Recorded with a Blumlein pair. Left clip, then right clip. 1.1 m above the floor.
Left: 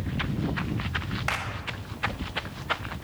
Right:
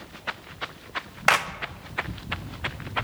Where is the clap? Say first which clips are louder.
Right 10 dB; 60° right, 1.0 m.